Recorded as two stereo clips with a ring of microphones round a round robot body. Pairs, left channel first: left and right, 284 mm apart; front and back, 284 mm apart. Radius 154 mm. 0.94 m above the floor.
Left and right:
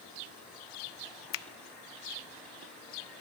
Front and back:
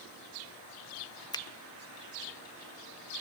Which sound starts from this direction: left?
A finger snap, at 1.3 s.